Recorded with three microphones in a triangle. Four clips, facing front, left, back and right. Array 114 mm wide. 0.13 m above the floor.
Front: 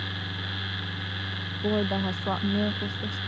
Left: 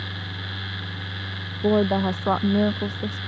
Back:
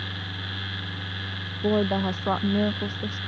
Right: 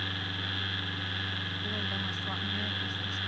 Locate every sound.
1.6 s a woman speaking: 110° left